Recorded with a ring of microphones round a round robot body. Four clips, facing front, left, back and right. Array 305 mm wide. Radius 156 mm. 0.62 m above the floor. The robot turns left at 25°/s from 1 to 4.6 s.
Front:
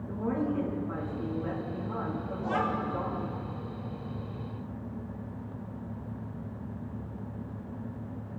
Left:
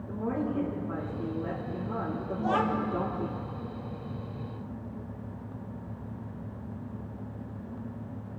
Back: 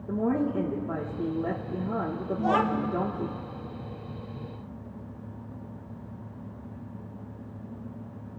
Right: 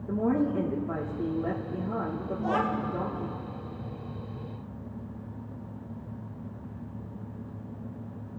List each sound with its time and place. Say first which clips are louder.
0.1 s a woman speaking: right 5 dB, back 4 dB; 140° right, 1.2 m; by 3.4 s 160° left, 1.2 m
2.4 s a child speaking: left 1 dB, back 6 dB; straight behind, 1.0 m; by 2.9 s 165° left, 1.0 m